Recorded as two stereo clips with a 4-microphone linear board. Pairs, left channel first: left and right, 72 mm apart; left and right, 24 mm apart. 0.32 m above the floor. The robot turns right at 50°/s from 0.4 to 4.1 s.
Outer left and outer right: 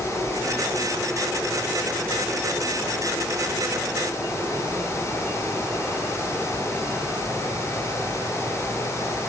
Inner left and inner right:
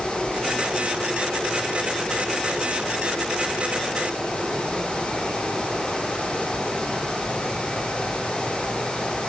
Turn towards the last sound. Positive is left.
No sound to turn to.